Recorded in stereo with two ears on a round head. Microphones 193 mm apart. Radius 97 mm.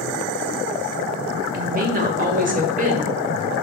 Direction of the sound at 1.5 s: 40° right (ahead or behind).